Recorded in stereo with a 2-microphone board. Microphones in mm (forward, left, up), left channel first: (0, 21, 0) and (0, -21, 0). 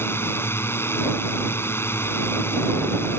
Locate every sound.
0.0 s a drone: 70° left (ahead or behind)